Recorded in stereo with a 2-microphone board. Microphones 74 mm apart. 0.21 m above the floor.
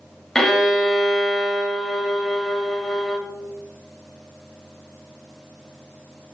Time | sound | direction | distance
0.3 | a violin | 5° left (ahead or behind) | 0.6 m